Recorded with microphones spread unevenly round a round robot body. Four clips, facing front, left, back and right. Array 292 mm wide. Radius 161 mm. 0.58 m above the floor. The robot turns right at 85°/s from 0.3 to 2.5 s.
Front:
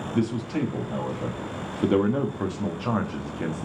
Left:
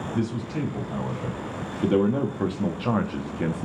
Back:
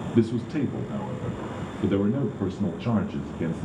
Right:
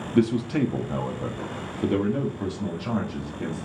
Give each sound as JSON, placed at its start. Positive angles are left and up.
{"t": 0.1, "sound": "a man speaking", "azimuth_deg": -120, "distance_m": 0.8}